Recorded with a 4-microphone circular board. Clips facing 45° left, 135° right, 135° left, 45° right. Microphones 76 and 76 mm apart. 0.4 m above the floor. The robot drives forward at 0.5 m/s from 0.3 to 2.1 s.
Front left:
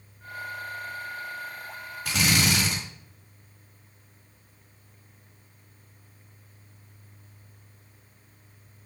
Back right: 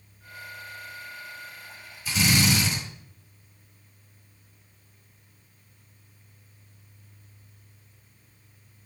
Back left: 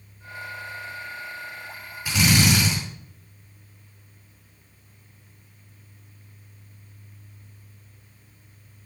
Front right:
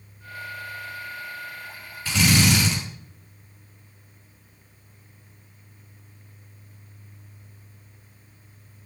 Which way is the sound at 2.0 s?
60° left.